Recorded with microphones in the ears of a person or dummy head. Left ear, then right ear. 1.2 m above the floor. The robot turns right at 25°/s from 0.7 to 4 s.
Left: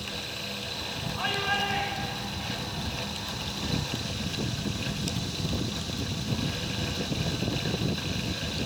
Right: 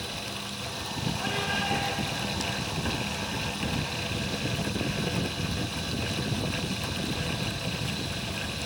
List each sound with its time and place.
1.2 s a shout: 150° left, 7 m; by 2.6 s 175° right, 7 m